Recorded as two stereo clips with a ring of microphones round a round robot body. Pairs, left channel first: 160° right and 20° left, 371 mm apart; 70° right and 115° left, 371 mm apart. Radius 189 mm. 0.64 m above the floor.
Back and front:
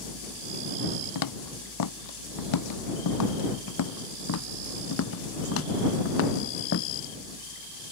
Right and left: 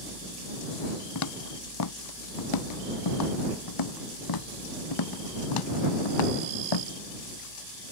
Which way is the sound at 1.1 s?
115° right.